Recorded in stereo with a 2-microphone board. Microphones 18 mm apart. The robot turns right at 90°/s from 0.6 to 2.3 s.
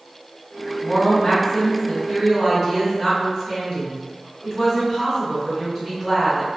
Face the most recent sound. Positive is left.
turn(degrees=-160)